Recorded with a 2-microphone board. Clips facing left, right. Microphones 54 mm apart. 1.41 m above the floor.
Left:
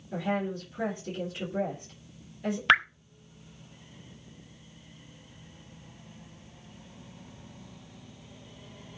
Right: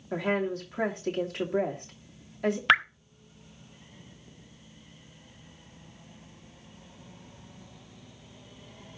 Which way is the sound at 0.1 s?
70° right (ahead or behind).